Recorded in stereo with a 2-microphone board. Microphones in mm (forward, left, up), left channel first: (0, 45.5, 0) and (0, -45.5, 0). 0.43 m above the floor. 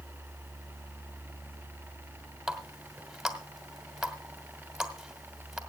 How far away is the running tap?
About 1.9 m.